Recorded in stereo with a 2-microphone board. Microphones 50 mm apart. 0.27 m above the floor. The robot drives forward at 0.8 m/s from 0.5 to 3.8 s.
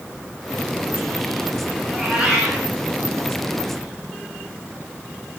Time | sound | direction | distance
1.9 | a cat meowing | 15° right (ahead or behind) | 9 m